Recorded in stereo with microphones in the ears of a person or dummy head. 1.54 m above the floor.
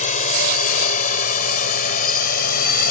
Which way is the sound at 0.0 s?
45° left (ahead or behind).